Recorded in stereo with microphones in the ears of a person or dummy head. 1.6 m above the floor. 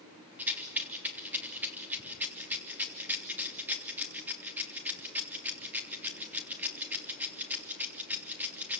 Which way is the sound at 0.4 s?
10° right (ahead or behind).